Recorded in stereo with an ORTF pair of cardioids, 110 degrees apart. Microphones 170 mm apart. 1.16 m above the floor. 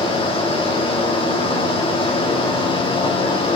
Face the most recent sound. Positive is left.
turn(degrees=30)